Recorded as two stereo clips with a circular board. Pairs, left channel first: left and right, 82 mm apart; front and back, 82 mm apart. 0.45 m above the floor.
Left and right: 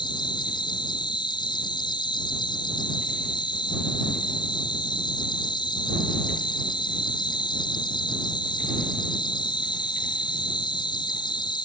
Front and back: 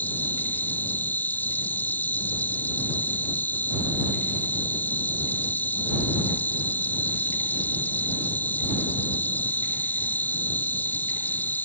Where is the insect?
70° left.